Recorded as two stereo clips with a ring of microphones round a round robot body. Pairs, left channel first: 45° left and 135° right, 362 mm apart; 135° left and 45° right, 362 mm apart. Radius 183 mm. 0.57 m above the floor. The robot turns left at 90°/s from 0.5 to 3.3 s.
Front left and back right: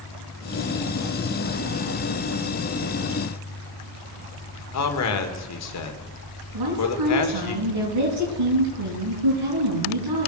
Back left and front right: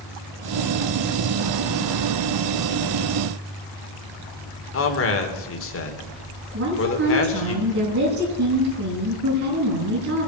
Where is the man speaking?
85° left, 2 m.